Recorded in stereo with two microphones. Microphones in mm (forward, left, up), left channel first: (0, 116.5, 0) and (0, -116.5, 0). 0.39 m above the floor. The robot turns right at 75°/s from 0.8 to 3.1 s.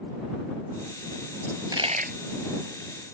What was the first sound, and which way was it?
A dropped coin, 5° left (ahead or behind).